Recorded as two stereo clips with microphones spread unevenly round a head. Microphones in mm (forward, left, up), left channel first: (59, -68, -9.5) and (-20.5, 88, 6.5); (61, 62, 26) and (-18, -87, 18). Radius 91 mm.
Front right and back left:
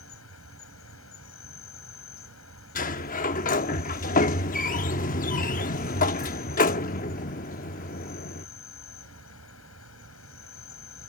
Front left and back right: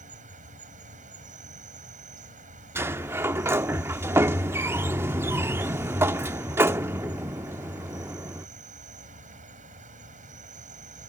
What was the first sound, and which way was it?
An insect, 75° right.